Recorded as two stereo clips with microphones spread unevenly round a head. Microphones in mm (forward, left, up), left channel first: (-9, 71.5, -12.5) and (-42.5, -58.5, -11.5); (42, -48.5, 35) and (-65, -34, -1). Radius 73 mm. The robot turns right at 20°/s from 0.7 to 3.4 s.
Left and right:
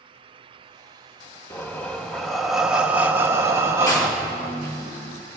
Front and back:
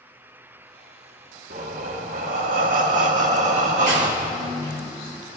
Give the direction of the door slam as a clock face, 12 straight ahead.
7 o'clock.